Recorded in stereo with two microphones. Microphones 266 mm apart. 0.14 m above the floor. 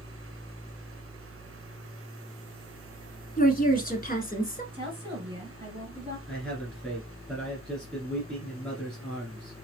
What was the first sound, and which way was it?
A woman speaking, 35° left (ahead or behind).